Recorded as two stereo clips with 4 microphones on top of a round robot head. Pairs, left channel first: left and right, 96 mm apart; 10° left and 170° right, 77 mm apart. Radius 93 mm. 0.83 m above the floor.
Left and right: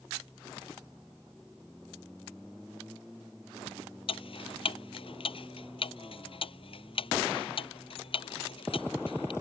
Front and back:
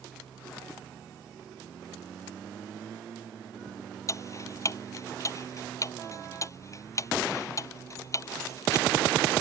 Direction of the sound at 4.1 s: 60° left.